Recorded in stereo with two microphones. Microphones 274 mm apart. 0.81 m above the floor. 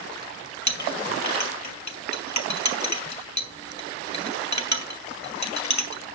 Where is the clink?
90° left, 1.4 m.